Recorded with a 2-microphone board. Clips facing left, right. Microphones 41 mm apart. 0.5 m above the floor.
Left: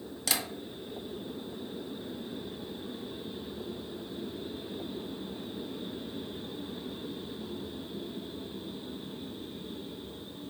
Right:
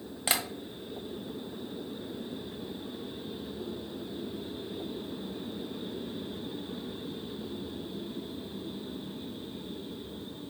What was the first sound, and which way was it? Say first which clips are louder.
Tapping: right 3 dB; 30° right (ahead or behind).